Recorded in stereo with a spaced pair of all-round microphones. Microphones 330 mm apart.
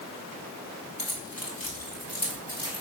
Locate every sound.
1.0 s keys jangling: 90° left, 2 m; by 2.8 s 75° left (ahead or behind), 3.5 m